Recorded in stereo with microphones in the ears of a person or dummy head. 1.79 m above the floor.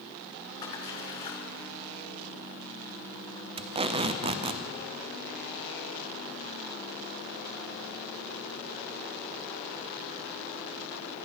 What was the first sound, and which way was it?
A splash, 20° left (ahead or behind).